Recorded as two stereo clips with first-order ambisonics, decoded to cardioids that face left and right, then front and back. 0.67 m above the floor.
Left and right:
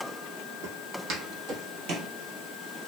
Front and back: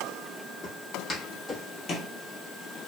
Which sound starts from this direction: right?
Footsteps, at 0.6 s.